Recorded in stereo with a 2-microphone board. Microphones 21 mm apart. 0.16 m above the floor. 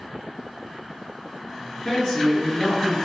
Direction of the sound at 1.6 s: 55° left (ahead or behind).